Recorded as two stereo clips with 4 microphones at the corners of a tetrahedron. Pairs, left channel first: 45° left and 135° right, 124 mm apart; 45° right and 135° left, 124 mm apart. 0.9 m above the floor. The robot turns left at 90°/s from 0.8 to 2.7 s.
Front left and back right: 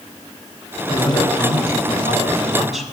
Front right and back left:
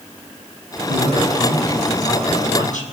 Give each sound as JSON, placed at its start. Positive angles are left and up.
{"t": 0.9, "sound": "a woman speaking", "azimuth_deg": 115, "distance_m": 6.0}